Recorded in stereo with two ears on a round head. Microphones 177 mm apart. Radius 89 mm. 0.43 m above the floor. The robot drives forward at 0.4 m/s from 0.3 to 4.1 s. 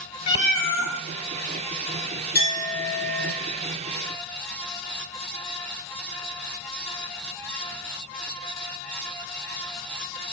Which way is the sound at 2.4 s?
70° left (ahead or behind).